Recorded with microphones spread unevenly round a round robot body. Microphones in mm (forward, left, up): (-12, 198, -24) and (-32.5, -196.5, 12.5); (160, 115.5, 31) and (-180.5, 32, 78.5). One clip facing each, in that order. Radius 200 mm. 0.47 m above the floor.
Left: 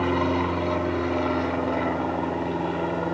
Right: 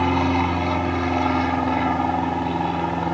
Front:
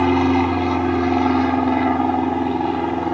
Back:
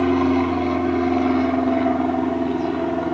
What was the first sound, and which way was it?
An aircraft, 50° right.